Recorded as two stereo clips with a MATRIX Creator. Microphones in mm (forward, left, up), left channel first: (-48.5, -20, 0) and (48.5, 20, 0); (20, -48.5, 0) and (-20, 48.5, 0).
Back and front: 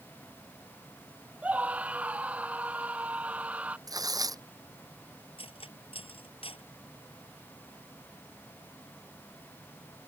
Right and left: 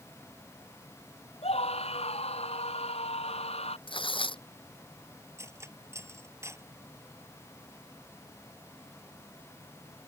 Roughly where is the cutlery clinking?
Behind.